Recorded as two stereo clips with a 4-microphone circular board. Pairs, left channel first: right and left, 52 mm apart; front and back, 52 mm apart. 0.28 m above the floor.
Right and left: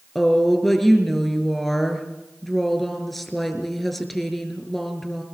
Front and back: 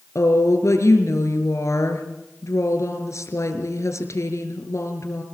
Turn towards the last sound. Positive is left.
turn(degrees=0)